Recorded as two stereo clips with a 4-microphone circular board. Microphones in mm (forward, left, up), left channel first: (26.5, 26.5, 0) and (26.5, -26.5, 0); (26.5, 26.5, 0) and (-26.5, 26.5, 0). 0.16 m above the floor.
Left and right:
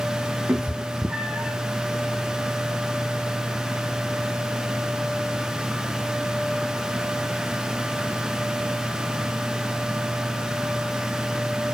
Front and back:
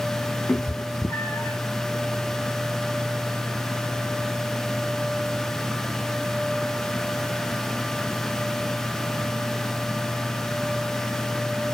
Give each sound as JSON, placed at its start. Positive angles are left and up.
{"t": 0.5, "sound": "a cat meowing", "azimuth_deg": -35, "distance_m": 1.8}